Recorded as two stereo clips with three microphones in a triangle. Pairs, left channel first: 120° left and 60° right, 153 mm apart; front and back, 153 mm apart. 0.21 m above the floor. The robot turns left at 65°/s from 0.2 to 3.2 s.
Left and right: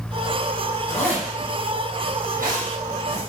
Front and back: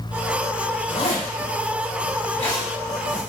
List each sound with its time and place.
0.9 s a zipper: 55° left, 3 m; by 3.2 s 95° right, 3 m